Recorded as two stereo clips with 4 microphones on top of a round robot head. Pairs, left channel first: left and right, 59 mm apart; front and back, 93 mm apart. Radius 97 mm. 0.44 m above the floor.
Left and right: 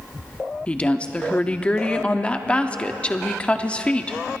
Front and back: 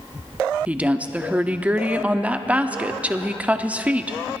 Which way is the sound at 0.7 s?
130° left.